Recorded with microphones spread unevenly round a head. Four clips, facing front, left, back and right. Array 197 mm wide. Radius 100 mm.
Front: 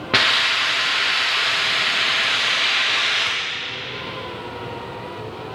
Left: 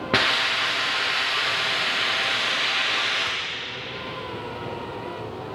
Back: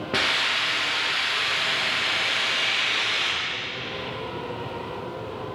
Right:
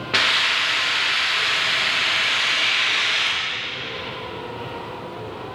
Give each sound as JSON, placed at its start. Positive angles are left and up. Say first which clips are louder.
{"t": 0.1, "sound": "a hiss", "louder": "right 1 dB, front 6 dB", "azimuth_deg": 65, "distance_m": 1.0}